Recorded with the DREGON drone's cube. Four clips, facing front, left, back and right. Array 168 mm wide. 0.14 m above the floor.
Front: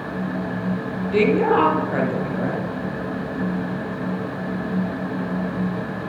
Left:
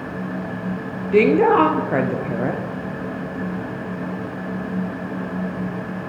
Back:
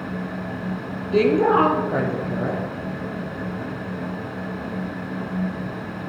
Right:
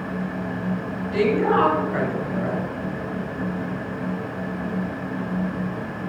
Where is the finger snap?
No finger snap in this recording.